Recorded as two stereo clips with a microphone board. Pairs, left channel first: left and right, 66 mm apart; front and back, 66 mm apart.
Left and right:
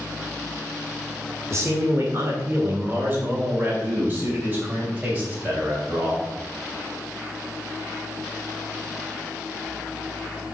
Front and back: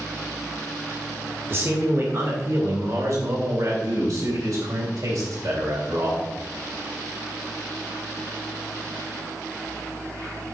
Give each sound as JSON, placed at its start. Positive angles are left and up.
{"t": 1.5, "sound": "a man speaking", "azimuth_deg": -130, "distance_m": 1.8}